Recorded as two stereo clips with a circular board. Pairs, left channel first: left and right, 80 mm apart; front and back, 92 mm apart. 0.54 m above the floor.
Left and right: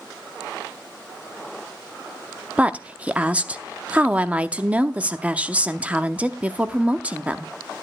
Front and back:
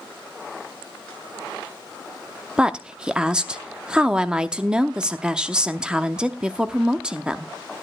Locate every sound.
2.6 s a woman speaking: 120° right, 0.6 m